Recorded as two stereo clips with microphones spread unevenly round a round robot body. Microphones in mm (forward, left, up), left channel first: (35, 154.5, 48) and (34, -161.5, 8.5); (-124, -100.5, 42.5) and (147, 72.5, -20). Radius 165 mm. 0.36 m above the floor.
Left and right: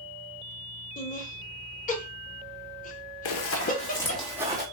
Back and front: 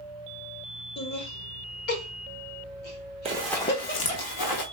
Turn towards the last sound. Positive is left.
turn(degrees=-170)